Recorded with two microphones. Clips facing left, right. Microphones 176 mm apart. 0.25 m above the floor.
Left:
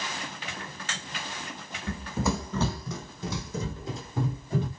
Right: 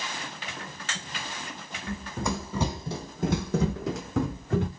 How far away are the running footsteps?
About 0.9 m.